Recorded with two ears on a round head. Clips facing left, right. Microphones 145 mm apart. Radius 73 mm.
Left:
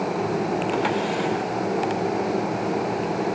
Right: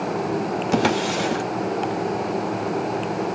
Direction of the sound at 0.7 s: 50° right (ahead or behind).